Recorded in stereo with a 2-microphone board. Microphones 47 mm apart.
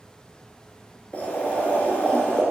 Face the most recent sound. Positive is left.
turn(degrees=35)  # may be behind; listen again after turning